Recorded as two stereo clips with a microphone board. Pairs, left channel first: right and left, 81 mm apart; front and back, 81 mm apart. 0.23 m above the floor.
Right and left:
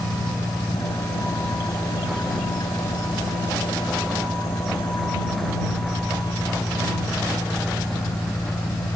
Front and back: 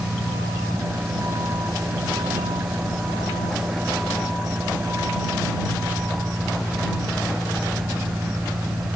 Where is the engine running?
125° right.